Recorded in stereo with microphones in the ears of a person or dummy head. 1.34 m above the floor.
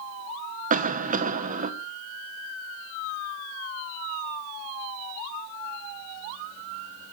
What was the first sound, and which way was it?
A cough, 35° right (ahead or behind).